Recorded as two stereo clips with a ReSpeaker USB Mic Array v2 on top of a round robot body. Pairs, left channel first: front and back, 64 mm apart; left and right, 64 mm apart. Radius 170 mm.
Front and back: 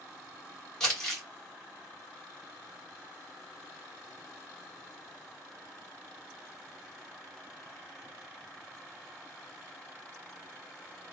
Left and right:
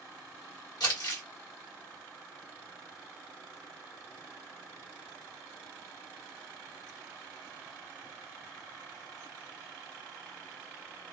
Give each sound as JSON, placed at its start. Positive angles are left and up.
{"t": 0.8, "sound": "crumpling", "azimuth_deg": 80, "distance_m": 1.3}